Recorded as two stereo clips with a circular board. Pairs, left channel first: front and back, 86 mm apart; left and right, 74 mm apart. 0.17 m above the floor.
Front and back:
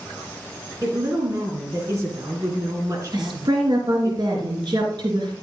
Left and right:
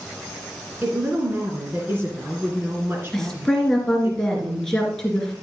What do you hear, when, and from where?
0.8 s a woman speaking: 140° right, 2.5 m
3.1 s a woman speaking: 175° left, 3 m